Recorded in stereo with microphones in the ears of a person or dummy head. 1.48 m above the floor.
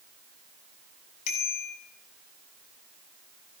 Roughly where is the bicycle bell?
Left.